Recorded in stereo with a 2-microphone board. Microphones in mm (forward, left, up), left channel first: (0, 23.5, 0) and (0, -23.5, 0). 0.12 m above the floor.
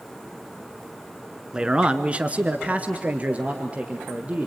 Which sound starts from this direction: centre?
A man speaking, at 1.5 s.